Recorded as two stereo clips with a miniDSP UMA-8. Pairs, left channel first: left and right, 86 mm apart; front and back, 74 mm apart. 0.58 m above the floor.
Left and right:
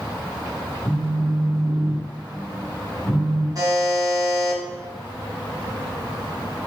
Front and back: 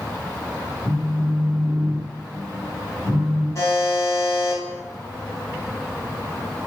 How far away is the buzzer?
About 0.9 m.